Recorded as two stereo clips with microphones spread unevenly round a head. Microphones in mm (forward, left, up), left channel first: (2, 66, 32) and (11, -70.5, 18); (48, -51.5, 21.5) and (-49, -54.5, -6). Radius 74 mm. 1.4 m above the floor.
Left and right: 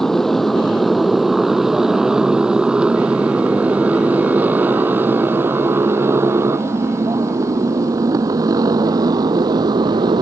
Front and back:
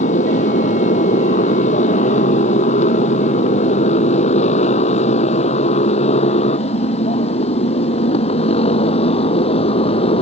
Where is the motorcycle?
5° left; by 10.2 s 25° right.